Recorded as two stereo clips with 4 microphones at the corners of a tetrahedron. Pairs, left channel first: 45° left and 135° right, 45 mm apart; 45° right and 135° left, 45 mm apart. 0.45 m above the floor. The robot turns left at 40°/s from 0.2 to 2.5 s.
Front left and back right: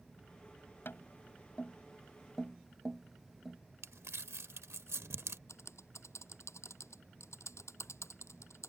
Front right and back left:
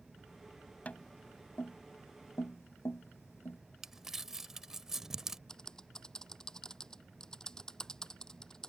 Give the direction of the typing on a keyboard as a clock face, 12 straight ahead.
11 o'clock.